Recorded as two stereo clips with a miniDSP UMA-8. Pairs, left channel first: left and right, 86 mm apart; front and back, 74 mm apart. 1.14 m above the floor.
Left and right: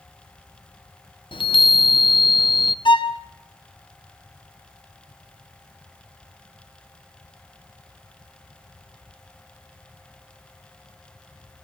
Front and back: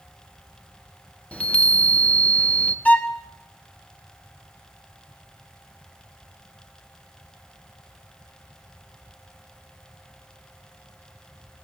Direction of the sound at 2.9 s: 70° left.